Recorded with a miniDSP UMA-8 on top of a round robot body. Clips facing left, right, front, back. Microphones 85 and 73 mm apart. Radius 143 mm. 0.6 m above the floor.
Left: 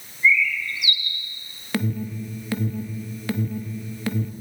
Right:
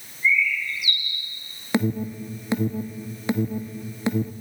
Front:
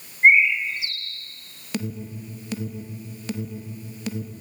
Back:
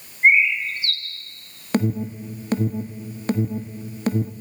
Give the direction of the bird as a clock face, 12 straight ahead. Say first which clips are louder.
Left 2 dB, front 1 dB; 9 o'clock.